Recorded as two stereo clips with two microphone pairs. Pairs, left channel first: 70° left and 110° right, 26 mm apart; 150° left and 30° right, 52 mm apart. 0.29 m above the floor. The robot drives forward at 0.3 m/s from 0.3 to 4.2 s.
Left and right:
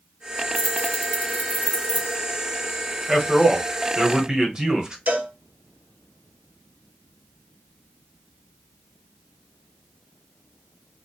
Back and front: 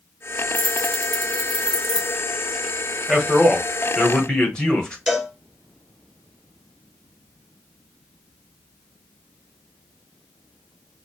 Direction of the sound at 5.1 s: 120° right.